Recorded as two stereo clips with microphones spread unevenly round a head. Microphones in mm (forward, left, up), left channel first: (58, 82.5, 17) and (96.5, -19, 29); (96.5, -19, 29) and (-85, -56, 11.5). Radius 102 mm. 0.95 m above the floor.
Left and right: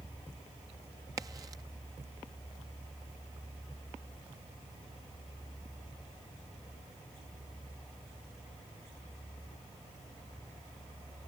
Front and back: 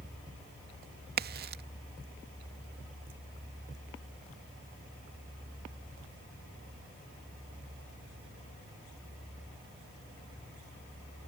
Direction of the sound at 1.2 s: 140° right.